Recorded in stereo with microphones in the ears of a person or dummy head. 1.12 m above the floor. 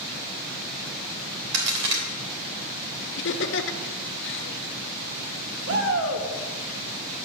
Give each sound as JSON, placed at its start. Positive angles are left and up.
{"t": 1.5, "sound": "a crack", "side_deg": -65, "distance_m": 3.0}
{"t": 3.2, "sound": "laughter", "side_deg": 60, "distance_m": 1.1}
{"t": 5.7, "sound": "a shout", "side_deg": -70, "distance_m": 2.0}